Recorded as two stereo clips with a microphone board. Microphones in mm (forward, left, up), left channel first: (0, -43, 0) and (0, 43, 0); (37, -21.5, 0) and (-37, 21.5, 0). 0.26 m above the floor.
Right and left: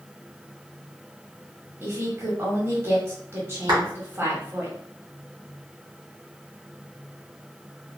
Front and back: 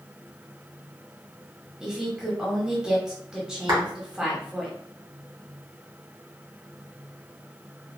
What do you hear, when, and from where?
1.8 s a woman speaking: 75° left, 1.0 m
3.7 s a clap: 115° left, 1.8 m